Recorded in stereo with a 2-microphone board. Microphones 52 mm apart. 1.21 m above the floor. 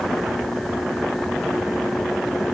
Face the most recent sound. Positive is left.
No sound to turn to.